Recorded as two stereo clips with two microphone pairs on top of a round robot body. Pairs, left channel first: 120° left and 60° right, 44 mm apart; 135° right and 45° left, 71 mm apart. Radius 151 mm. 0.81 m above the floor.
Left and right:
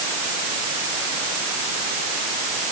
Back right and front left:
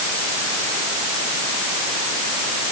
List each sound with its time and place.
Only background noise.